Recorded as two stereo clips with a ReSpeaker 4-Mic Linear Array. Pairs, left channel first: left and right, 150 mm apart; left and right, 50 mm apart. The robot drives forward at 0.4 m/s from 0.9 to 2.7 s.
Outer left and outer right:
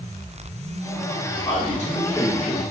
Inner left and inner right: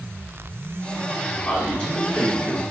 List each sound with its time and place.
1.4 s a man speaking: 25° left (ahead or behind), 1.9 m; by 2.6 s 20° left (ahead or behind), 2 m